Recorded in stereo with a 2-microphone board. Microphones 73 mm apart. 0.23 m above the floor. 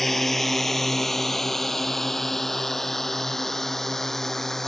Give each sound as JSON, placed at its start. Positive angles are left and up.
{"t": 0.0, "sound": "a drone", "side_deg": 5}